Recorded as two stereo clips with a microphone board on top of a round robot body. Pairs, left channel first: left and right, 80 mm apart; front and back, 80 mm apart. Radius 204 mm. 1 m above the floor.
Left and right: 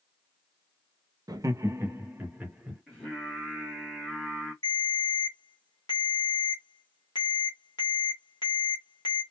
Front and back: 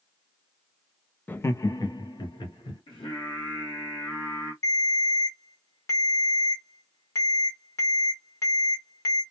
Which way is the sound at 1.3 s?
65° right.